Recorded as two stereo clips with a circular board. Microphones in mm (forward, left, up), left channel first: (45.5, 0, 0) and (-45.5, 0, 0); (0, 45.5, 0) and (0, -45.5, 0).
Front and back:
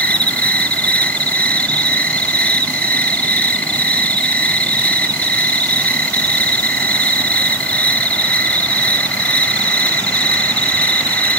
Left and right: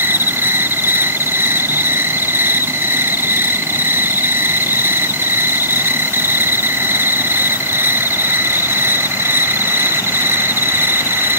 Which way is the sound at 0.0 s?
60° right.